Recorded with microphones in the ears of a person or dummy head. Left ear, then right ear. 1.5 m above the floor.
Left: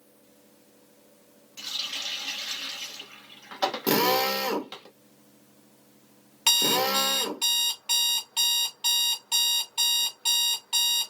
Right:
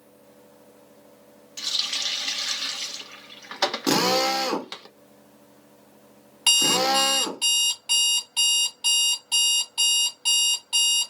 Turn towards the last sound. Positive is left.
turn(degrees=20)  # may be behind; listen again after turning